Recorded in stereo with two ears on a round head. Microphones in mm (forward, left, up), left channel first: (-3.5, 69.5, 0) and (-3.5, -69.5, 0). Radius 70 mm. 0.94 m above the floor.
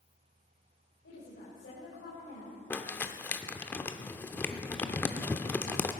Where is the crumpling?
15° left (ahead or behind), 0.7 m.